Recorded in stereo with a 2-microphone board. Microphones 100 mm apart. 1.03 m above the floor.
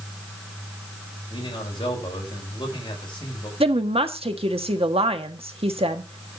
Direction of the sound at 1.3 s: 50° left (ahead or behind).